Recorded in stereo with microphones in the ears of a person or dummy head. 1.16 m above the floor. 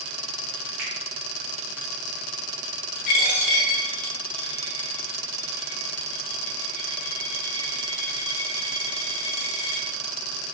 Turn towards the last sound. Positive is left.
turn(degrees=50)  # may be behind; listen again after turning